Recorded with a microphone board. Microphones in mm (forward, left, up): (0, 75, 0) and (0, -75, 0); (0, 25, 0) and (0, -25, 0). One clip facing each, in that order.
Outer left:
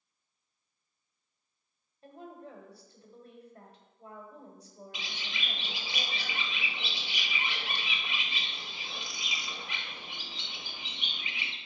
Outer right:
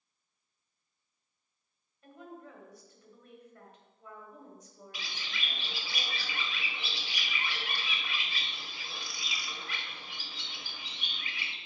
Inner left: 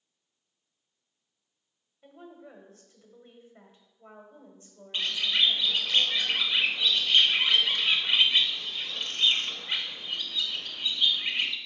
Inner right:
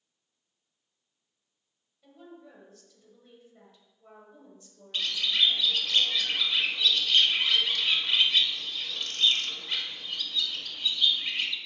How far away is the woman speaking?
About 1.4 m.